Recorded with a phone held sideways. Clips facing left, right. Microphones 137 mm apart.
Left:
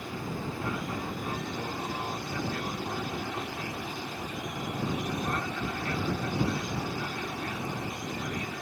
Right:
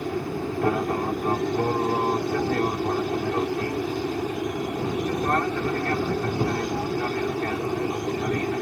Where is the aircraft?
65° right (ahead or behind).